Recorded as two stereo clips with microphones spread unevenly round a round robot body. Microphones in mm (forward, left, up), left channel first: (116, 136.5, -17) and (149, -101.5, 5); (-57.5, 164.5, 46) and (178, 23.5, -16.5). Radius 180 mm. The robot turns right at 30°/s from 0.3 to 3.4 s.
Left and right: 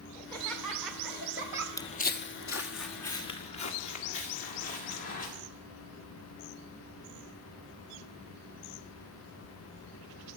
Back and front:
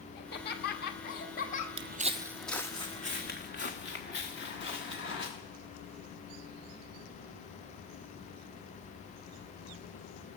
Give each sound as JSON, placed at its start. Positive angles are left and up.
{"t": 0.1, "sound": "laughter", "azimuth_deg": 160, "distance_m": 1.2}
{"t": 1.8, "sound": "footsteps", "azimuth_deg": 15, "distance_m": 0.5}